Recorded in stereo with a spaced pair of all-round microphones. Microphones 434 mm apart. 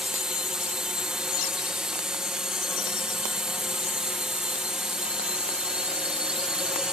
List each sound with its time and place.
0.0 s a drone: centre (ahead or behind)